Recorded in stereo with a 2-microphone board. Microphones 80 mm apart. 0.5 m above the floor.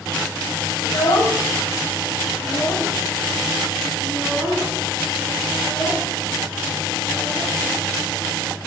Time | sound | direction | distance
0.8 | a child speaking | 70° left (ahead or behind) | 1.8 m